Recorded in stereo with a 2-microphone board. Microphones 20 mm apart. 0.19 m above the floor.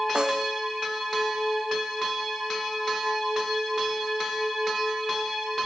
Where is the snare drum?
35° right (ahead or behind).